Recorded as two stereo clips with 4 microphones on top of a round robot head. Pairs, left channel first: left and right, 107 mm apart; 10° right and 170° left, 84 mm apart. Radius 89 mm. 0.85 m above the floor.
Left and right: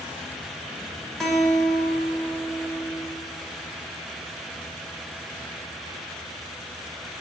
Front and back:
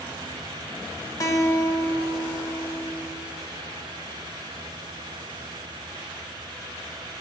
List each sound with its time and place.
1.2 s a guitar: 5° left, 1.2 m